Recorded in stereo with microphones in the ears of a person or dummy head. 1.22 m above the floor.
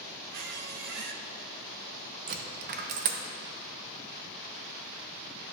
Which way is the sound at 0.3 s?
50° right (ahead or behind).